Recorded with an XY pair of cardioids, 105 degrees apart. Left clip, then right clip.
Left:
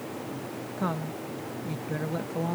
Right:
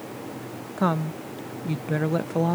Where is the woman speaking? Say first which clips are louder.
Right 7 dB; 45° right.